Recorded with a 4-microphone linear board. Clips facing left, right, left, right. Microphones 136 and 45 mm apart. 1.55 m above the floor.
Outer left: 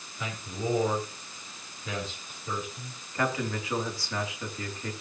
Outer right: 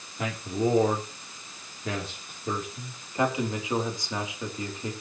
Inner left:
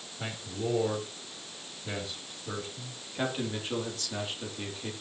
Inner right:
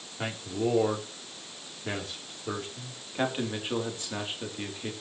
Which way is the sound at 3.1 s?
20° right (ahead or behind).